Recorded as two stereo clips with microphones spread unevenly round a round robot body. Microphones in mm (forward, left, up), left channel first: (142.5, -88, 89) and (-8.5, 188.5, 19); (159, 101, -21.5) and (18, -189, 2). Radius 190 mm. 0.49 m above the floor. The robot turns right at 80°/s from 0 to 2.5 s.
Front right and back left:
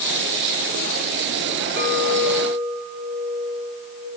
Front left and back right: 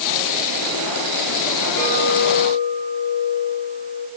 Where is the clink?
35° left, 6 m; by 4.1 s 95° left, 6 m.